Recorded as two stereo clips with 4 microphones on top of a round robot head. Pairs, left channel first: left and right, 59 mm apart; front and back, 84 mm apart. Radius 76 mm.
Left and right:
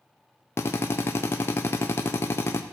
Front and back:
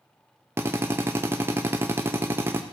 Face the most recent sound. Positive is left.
turn(degrees=125)